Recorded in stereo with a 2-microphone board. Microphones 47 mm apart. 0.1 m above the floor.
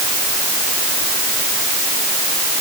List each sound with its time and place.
Only background noise.